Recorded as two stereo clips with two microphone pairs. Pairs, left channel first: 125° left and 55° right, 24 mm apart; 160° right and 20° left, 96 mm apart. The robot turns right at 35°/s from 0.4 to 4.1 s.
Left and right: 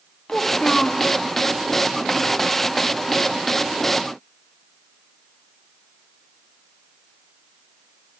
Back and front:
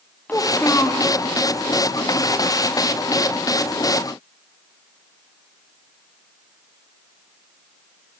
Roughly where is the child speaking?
Behind left.